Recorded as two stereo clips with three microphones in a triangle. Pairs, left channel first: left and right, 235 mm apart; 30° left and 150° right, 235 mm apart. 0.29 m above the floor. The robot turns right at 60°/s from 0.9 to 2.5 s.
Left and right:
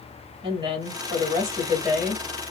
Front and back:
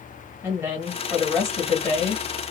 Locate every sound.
0.4 s a woman speaking: 90° right, 1.2 m; by 2.2 s 10° right, 1.2 m